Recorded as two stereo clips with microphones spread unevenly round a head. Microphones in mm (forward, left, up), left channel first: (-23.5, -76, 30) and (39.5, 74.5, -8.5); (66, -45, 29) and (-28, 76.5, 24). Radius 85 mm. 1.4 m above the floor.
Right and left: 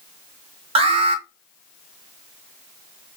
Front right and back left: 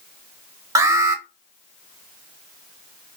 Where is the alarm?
70° left, 0.9 m.